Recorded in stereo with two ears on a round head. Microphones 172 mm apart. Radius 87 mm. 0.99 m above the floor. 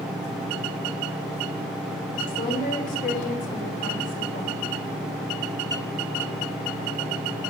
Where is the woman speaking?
45° left (ahead or behind), 3.5 m.